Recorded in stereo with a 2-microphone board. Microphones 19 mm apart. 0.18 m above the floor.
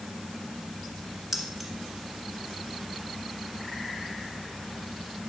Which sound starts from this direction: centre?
Keys jangling, at 1.3 s.